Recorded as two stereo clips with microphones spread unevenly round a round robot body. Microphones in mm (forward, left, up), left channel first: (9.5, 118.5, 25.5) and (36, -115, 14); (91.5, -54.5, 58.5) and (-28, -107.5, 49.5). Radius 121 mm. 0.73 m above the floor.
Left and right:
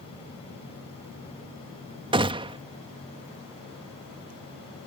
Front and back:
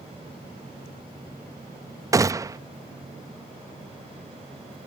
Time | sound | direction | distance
2.1 | a gunshot | 125° right | ?